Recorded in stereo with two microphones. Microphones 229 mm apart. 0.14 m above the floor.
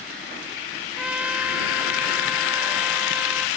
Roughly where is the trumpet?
Centre.